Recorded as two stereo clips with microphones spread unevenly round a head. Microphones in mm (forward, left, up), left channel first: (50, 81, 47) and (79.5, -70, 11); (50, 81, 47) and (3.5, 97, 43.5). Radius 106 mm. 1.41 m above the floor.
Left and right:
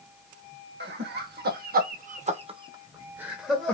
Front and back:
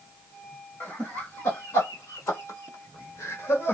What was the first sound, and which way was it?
Laughter, 85° right.